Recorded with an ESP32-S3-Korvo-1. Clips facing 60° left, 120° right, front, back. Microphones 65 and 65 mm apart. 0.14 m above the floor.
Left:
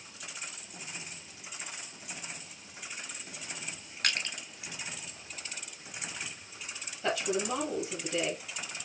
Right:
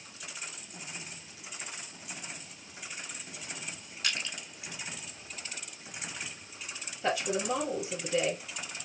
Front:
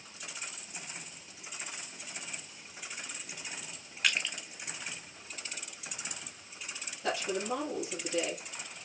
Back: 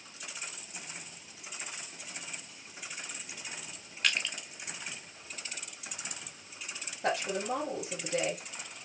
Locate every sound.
4.0 s crushing: 85° left, 1.0 m
7.0 s a woman speaking: 165° left, 3 m